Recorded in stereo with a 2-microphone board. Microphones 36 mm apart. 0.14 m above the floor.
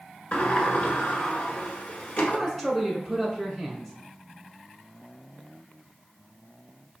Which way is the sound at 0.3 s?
45° left (ahead or behind).